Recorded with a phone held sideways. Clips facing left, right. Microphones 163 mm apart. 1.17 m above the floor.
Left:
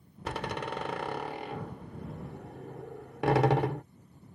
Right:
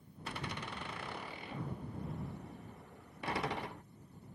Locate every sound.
0.2 s a door slam: 75° left (ahead or behind)